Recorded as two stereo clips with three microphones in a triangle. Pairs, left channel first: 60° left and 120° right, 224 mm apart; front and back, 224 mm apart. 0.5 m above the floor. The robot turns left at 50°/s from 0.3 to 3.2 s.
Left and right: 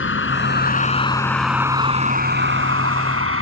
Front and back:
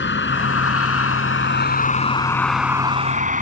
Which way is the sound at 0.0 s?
35° left.